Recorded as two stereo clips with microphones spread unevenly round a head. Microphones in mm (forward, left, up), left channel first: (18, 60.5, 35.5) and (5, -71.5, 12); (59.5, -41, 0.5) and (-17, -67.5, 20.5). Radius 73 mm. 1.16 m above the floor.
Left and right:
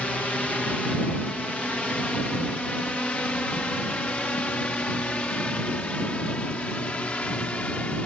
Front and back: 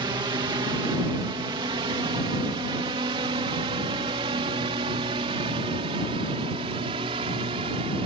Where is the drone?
170° left; by 8.1 s 165° left.